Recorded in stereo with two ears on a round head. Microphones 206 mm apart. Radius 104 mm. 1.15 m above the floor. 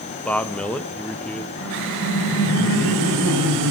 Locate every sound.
0.2 s a man speaking: 5° left (ahead or behind), 1.2 m
1.6 s laughter: 60° left (ahead or behind), 5 m